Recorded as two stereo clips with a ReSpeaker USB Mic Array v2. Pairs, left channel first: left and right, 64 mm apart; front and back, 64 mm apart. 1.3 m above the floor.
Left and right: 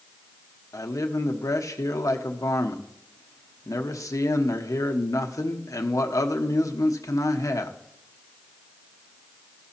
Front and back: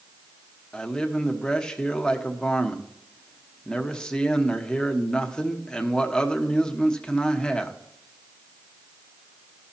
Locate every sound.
0.7 s a man speaking: 75° left, 1.1 m